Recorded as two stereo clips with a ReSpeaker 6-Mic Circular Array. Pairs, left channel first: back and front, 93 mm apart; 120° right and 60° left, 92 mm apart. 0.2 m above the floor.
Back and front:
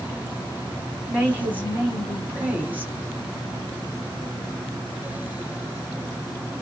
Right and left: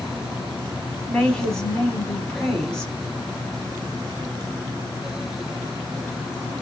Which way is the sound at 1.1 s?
50° right.